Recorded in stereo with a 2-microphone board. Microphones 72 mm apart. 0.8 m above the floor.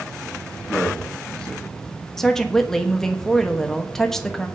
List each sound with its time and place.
0.7 s a man speaking: centre (ahead or behind), 1.5 m
2.2 s a woman speaking: 5° left (ahead or behind), 1.1 m